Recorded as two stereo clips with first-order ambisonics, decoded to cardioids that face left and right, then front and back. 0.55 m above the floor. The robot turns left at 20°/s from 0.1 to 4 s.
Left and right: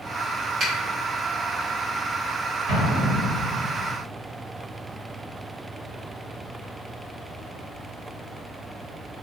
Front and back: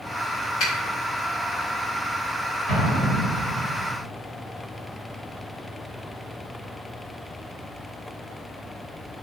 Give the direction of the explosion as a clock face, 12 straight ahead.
4 o'clock.